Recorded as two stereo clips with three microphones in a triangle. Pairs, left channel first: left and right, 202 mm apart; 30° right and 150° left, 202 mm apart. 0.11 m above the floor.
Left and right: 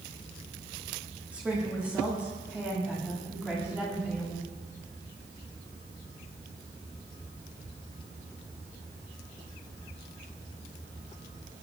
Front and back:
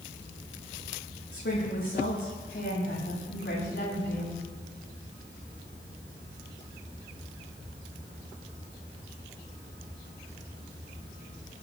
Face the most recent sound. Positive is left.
turn(degrees=-5)